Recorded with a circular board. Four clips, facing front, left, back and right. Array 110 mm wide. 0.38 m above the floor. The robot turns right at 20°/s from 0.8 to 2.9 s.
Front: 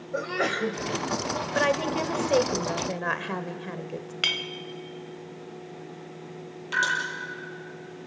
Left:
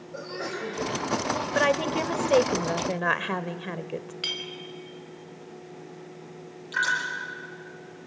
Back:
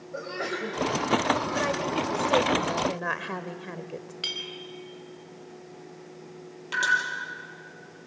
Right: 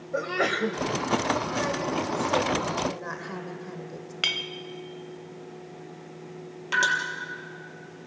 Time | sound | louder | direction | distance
0.1 | a sneeze | right 8 dB, front 5 dB | 60° right | 1.8 m
1.6 | a woman speaking | left 4 dB, front 2 dB | 60° left | 1.1 m
4.2 | a clink | right 3 dB, front 6 dB | 40° right | 1.2 m
6.7 | dripping | right 4 dB, front 2 dB | 95° right | 7.5 m